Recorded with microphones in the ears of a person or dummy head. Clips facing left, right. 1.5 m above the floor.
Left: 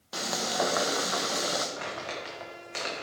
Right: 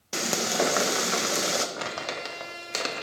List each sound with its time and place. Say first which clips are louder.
0.1 s frying: right 4 dB; 40° right (ahead or behind), 0.9 m
1.8 s crumpling: right 3 dB; 60° right (ahead or behind), 1.5 m